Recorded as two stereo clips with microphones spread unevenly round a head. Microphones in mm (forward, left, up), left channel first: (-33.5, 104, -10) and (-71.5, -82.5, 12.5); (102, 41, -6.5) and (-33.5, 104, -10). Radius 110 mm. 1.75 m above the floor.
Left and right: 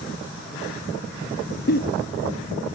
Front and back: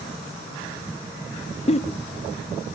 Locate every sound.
1.7 s a giggle: 25° left, 0.8 m